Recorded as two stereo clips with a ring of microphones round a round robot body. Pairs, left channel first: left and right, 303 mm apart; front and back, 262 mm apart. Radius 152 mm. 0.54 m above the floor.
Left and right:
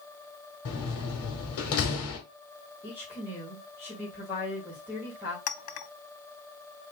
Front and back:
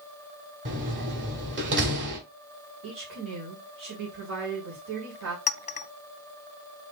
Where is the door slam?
135° left, 1.7 m.